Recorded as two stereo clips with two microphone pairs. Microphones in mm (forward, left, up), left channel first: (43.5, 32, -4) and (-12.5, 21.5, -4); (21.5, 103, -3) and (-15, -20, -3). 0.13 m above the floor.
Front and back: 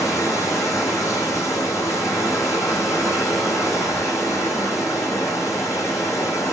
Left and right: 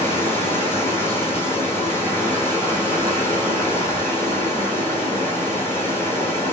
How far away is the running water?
About 2.5 m.